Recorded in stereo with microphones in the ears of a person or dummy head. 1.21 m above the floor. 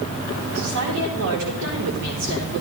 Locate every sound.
0.6 s a woman speaking: 75° right (ahead or behind), 3.5 m